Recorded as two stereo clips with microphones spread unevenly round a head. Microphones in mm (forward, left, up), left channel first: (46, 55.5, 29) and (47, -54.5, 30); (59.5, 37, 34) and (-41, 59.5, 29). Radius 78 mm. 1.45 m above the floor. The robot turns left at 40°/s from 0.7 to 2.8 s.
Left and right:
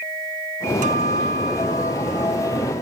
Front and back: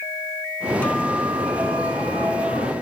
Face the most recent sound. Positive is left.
turn(degrees=-170)